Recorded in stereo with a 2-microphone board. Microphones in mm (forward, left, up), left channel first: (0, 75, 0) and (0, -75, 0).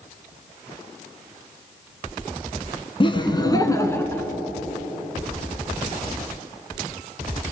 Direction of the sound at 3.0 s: 35° left (ahead or behind).